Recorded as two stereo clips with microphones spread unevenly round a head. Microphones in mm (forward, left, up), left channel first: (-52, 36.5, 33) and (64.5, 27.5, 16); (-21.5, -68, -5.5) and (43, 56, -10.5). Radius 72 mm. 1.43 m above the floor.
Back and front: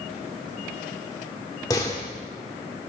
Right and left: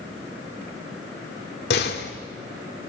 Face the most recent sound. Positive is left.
turn(degrees=-120)